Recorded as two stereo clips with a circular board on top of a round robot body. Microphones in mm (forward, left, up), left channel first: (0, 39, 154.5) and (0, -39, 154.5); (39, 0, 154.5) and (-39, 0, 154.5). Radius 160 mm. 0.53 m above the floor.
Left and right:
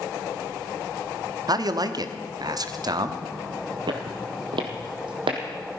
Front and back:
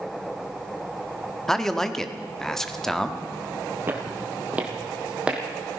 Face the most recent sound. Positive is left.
turn(degrees=-100)